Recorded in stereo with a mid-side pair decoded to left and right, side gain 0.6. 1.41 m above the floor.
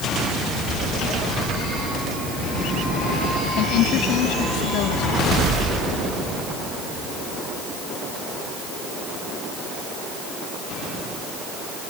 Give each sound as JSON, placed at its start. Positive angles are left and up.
{"t": 3.6, "sound": "a woman speaking", "azimuth_deg": 70}